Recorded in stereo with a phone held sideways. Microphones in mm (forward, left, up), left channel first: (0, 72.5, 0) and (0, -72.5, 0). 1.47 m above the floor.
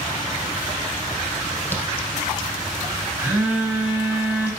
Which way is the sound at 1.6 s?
15° left (ahead or behind).